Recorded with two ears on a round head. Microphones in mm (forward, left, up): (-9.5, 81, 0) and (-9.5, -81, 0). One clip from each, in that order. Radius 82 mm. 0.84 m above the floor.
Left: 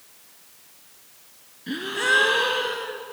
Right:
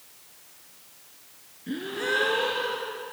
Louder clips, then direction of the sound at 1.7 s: Left 6 dB; 50° left (ahead or behind).